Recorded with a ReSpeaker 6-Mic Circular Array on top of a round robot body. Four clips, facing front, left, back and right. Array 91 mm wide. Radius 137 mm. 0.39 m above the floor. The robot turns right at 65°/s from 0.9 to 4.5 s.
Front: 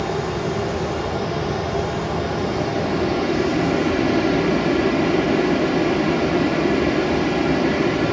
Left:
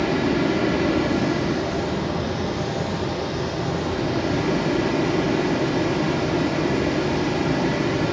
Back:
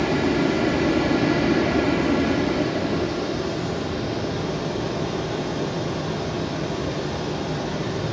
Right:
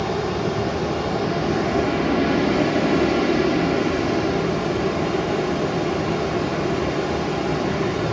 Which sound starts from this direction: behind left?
Running water, at 0.0 s.